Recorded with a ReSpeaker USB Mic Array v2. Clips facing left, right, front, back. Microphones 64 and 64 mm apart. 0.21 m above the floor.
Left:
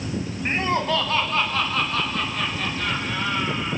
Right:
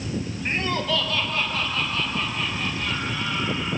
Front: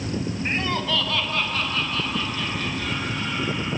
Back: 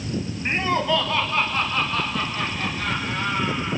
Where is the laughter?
120° left, 1.3 m.